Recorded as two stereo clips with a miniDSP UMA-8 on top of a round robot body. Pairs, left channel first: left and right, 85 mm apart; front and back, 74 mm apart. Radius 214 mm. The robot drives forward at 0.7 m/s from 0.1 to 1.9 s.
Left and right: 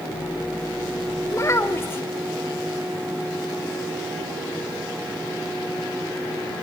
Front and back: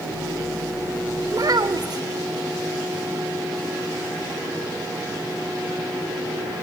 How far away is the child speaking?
About 1.2 m.